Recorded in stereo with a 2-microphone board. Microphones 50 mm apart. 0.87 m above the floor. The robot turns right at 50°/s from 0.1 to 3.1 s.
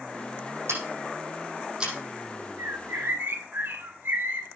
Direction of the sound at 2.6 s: 75° right (ahead or behind).